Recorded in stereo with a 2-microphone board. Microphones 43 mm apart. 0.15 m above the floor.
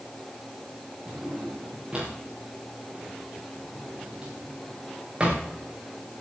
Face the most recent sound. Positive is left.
turn(degrees=-20)  # may be behind; listen again after turning